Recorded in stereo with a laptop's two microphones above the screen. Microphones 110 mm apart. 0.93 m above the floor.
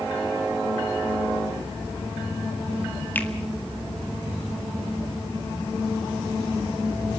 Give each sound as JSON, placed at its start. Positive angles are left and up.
{"t": 3.1, "sound": "a finger snap", "side_deg": 15, "distance_m": 1.8}